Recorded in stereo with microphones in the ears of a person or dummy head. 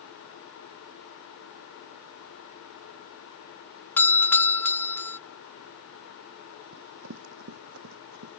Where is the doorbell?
5° left (ahead or behind).